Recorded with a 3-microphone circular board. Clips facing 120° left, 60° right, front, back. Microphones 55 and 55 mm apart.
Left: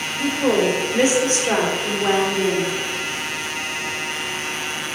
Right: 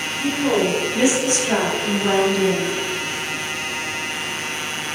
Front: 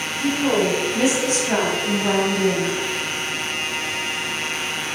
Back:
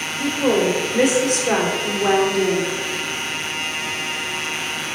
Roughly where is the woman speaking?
Behind left.